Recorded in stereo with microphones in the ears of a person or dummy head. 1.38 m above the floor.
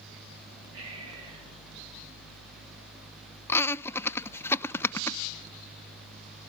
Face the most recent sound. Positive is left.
turn(degrees=15)  # may be behind; listen again after turning